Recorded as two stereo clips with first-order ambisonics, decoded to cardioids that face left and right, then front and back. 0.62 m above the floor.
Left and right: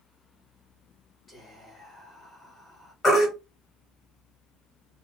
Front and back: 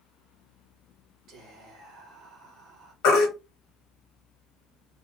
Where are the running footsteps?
I don't hear running footsteps.